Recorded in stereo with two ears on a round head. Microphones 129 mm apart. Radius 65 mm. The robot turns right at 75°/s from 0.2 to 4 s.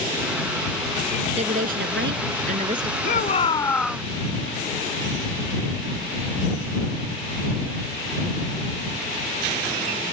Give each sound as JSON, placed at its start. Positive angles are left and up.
{"t": 1.4, "sound": "a woman speaking", "azimuth_deg": -135}
{"t": 3.0, "sound": "a shout", "azimuth_deg": 115}